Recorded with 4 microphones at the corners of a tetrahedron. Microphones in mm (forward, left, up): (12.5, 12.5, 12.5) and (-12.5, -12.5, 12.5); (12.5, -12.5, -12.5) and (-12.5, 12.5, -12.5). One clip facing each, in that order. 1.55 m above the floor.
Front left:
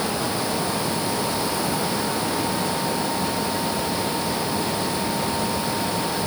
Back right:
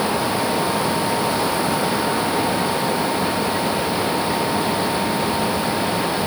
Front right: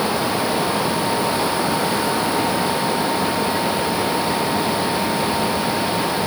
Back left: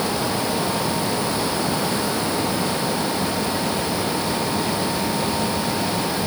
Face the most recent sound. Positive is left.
No sound to turn to.